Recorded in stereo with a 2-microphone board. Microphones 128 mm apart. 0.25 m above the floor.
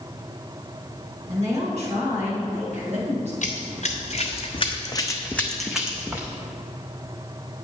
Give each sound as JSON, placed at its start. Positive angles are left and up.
{"t": 1.3, "sound": "a woman speaking", "side_deg": -60, "distance_m": 2.5}
{"t": 3.4, "sound": "running footsteps", "side_deg": 75, "distance_m": 1.4}